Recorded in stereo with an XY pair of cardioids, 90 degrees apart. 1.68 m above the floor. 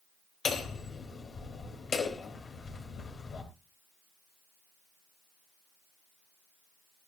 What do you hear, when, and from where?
0.5 s hammering: 55° left, 4 m